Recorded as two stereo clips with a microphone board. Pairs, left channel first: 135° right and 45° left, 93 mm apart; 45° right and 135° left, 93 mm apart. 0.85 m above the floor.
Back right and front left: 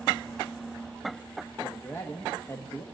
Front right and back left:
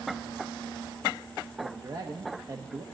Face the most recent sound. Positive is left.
turn(degrees=170)